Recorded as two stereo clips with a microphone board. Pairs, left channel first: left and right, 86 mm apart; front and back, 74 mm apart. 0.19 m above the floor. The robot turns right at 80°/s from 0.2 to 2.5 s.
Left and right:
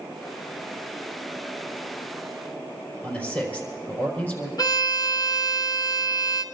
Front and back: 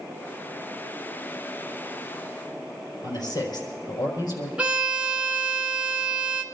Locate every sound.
3.0 s a man speaking: 20° left, 5 m
4.6 s a violin: 110° left, 1.5 m